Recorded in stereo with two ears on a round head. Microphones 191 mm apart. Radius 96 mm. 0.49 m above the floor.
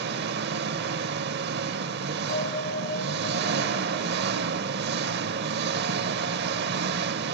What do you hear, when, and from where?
0.0 s an engine running: 50° right (ahead or behind), 0.8 m
2.3 s a bell: 40° left (ahead or behind), 1.8 m